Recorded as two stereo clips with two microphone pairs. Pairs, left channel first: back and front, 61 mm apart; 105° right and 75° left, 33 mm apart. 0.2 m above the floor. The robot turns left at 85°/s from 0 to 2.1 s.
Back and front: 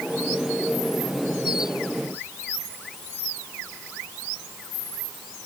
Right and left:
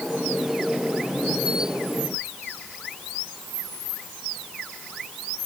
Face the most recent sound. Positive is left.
No sound to turn to.